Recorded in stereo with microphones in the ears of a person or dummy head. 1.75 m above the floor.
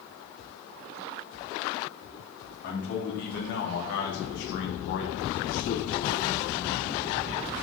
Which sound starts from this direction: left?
A man speaking, at 2.6 s.